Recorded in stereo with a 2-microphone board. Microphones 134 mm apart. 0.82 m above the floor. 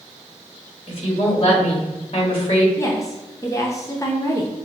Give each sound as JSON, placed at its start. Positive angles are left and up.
{"t": 0.9, "sound": "a woman speaking", "side_deg": 45, "distance_m": 1.5}
{"t": 2.8, "sound": "a woman speaking", "side_deg": 25, "distance_m": 0.6}